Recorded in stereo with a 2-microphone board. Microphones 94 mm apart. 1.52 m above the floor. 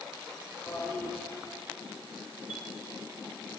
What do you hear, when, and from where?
0.7 s a toilet flushing: 25° left (ahead or behind), 3 m
2.5 s a chime: 15° right (ahead or behind), 1.4 m